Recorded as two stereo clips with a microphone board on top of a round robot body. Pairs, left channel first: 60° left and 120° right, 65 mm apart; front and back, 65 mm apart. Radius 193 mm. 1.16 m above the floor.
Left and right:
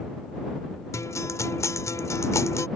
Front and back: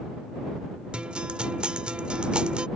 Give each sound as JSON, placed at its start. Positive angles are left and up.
{"t": 0.9, "sound": "a guitar", "azimuth_deg": 105}